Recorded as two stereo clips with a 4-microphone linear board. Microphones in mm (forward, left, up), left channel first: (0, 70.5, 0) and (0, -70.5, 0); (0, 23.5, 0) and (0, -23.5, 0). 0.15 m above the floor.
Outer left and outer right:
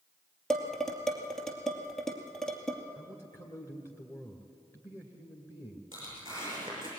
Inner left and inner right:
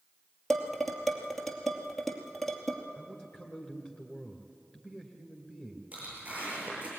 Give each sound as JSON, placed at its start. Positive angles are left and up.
{"t": 0.5, "sound": "dishes clattering", "side_deg": 5, "distance_m": 2.5}
{"t": 3.0, "sound": "a man speaking", "side_deg": 20, "distance_m": 2.0}
{"t": 5.9, "sound": "tearing paper", "side_deg": -30, "distance_m": 9.0}